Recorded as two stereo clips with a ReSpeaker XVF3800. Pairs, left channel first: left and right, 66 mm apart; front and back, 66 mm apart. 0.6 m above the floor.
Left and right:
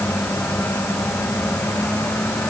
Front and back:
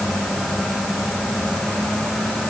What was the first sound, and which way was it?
Only background noise.